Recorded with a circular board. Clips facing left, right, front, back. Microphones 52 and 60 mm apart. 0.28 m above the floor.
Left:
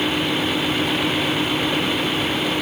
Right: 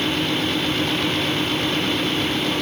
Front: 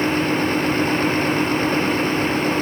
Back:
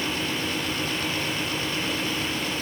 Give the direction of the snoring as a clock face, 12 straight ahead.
I don't hear snoring.